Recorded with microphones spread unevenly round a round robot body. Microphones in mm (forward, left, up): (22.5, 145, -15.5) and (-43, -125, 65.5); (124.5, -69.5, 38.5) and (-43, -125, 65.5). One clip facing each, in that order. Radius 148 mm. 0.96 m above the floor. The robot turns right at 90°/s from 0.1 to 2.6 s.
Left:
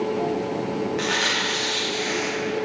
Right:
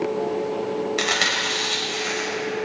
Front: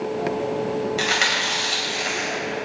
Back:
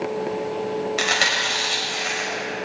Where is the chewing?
135° right, 3 m; by 2.3 s 15° right, 3 m.